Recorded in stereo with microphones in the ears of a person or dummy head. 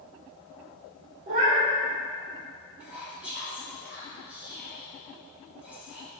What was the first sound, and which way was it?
A cat meowing, 45° right (ahead or behind).